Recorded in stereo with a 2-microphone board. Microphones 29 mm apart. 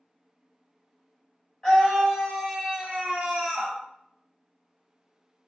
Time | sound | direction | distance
1.6 | a scream | 30° left (ahead or behind) | 1.1 m